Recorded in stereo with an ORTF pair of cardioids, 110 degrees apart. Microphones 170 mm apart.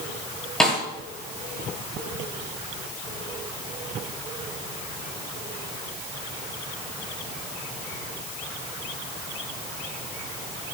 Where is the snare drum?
5° left, 9.5 m.